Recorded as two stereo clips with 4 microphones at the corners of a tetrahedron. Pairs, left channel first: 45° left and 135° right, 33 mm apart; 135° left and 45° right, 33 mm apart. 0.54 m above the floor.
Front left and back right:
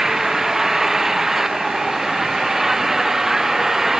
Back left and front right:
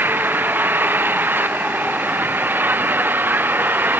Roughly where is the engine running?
Ahead right.